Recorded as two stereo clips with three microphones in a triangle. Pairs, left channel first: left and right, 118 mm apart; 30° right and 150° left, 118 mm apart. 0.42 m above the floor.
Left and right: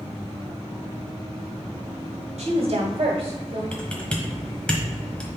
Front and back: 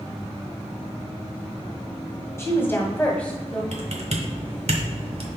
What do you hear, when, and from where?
2.4 s a woman speaking: 90° right, 1.8 m; by 3.6 s 115° right, 1.5 m
3.7 s typing on a keyboard: 170° left, 1.3 m